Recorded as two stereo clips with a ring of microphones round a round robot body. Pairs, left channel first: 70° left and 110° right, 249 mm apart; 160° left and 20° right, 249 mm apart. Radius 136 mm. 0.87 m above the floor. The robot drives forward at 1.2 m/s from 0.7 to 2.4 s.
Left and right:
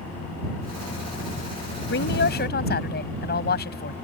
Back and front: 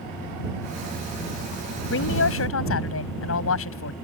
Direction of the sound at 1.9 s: 115° left.